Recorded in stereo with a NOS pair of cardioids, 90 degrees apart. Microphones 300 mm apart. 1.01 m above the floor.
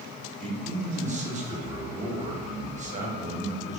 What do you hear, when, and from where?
0.4 s a man speaking: 25° right, 1.0 m